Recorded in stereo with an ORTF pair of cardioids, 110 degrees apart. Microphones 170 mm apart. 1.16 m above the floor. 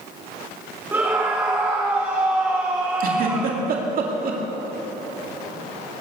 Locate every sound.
0.9 s a scream: 10° right, 1.7 m
3.0 s a giggle: 55° right, 2.5 m